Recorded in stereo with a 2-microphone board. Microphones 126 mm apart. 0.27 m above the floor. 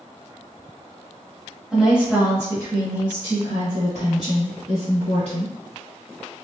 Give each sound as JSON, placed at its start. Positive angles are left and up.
{"t": 1.7, "sound": "a woman speaking", "side_deg": -5, "distance_m": 1.1}